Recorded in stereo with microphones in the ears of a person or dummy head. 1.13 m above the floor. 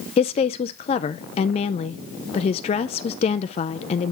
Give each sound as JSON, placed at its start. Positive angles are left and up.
{"t": 0.2, "sound": "a woman speaking", "side_deg": 30, "distance_m": 0.5}